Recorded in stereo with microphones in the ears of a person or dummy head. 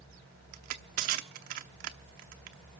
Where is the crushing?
40° right (ahead or behind), 0.9 m.